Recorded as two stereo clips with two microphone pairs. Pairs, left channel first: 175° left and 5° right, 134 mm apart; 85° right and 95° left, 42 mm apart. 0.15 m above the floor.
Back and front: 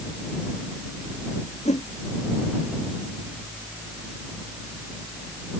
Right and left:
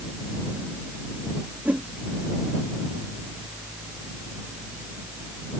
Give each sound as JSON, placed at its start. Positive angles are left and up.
{"t": 1.6, "sound": "a whoosh", "azimuth_deg": 150}